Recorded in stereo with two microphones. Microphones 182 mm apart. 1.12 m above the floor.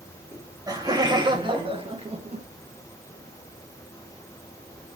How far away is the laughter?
About 2.5 m.